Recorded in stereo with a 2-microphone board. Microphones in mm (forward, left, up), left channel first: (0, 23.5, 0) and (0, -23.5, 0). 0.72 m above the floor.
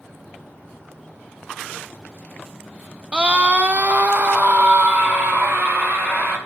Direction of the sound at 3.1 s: 20° right (ahead or behind).